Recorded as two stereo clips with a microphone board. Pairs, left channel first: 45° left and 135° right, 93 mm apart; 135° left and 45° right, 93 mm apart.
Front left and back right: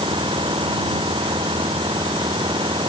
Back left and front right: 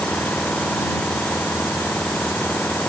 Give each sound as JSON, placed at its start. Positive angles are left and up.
{"t": 0.0, "sound": "an engine running", "azimuth_deg": -150}